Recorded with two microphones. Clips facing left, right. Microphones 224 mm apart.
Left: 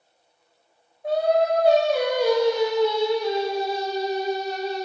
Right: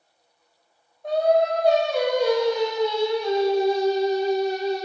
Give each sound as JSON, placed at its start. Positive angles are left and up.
{"t": 1.0, "sound": "singing", "side_deg": 5, "distance_m": 0.6}